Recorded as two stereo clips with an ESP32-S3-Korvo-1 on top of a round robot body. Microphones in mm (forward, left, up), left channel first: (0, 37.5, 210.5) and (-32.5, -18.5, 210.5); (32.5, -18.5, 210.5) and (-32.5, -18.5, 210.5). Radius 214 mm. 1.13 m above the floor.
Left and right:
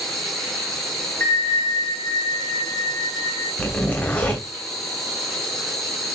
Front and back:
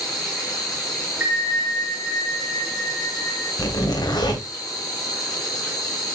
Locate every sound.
0.0 s an insect: 25° right, 1.8 m
1.2 s a bell: 115° left, 3 m
3.6 s a zipper: 10° right, 2.5 m